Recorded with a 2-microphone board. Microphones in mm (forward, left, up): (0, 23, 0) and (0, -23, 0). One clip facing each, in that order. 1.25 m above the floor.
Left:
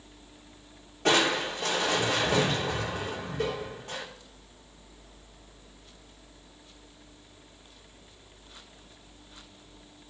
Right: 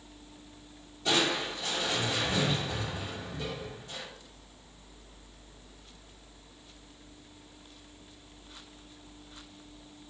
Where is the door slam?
I don't hear a door slam.